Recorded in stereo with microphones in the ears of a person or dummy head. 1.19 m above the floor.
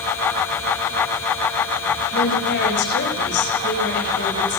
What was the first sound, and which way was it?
A woman speaking, 65° left (ahead or behind).